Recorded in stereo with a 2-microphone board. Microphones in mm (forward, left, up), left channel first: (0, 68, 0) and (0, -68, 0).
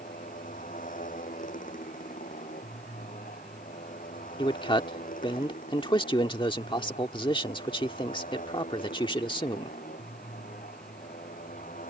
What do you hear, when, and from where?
0.0 s a motorcycle: 80° left; by 11.9 s 85° left
4.4 s a man speaking: 35° left (ahead or behind)